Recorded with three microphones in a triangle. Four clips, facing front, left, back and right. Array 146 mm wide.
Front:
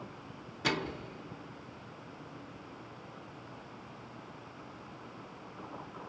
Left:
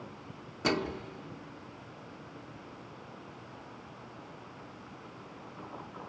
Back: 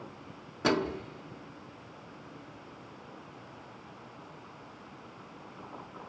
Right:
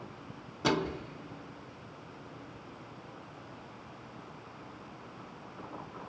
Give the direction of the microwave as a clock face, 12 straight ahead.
6 o'clock.